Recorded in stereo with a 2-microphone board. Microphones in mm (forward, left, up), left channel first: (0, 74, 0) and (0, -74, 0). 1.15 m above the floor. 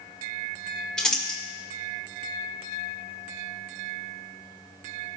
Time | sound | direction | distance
1.0 | crumpling | 5° left (ahead or behind) | 1.8 m